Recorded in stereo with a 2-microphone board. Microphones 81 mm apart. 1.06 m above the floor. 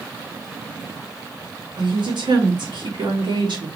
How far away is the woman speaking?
About 2 m.